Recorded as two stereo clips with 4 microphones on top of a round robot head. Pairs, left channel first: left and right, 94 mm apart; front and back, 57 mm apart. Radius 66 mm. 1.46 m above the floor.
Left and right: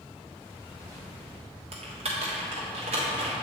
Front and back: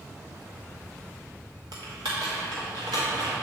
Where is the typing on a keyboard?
130° right, 1.1 m.